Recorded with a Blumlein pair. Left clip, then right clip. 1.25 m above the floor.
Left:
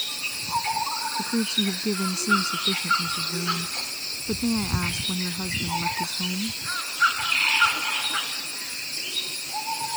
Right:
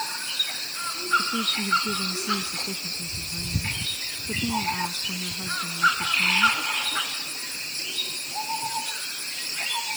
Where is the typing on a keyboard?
I don't hear typing on a keyboard.